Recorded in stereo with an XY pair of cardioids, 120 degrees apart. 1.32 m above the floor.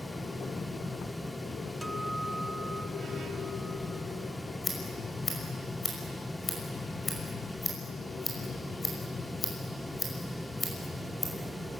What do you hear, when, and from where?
0.0 s a fan: 5° left, 0.7 m
1.8 s a guitar: 10° right, 0.8 m
4.6 s scissors: 25° left, 6 m